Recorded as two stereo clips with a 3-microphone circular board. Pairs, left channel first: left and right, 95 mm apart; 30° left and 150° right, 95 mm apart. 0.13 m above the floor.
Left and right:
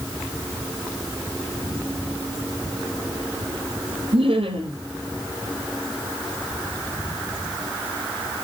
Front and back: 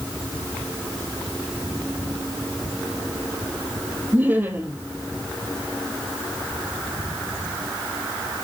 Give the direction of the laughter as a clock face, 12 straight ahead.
3 o'clock.